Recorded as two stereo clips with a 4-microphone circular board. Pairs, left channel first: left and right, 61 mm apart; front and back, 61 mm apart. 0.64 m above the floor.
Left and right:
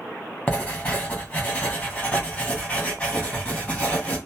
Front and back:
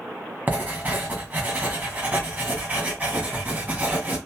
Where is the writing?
145° left, 1.2 m.